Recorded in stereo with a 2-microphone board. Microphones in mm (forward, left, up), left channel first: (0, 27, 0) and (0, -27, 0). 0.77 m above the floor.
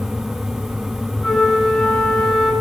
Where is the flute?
5° left (ahead or behind), 1.7 m.